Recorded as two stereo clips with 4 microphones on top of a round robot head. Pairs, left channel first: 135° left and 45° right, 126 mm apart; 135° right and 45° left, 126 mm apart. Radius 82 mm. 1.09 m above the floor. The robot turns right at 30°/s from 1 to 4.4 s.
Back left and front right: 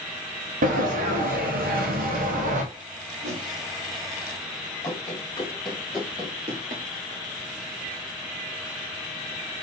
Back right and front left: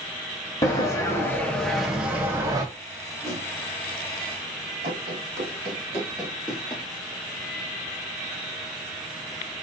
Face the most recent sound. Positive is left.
turn(degrees=-55)